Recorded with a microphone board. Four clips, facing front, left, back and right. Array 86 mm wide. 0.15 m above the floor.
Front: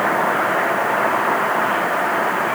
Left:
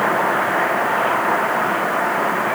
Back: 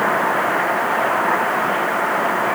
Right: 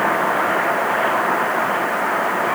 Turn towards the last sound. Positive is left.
No sound to turn to.